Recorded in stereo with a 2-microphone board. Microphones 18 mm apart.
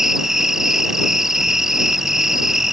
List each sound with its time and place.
0.0 s an insect: 25° right (ahead or behind)